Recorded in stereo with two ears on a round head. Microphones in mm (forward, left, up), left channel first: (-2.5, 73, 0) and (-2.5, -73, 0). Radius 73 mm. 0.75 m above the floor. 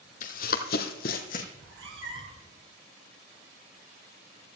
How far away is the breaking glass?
No breaking glass in this recording.